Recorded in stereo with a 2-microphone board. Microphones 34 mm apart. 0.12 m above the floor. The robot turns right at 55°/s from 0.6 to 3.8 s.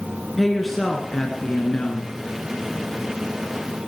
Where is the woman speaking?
Straight ahead, 1.5 m; by 2.2 s 90° left, 1.5 m.